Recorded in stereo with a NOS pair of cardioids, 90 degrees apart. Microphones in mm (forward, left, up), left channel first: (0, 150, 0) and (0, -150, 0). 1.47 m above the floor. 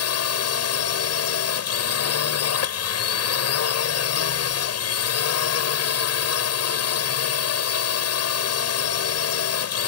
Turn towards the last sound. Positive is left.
turn(degrees=55)